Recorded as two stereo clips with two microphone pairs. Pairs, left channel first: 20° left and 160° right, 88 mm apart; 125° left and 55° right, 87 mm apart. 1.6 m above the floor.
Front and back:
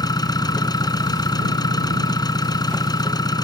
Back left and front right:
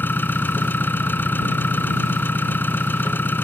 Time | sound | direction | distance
0.0 | an engine running | 60° left | ?